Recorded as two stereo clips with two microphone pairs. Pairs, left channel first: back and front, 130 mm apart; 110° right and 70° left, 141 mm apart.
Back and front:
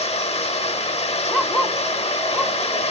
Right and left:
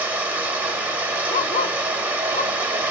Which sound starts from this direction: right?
A dog barking, at 1.3 s.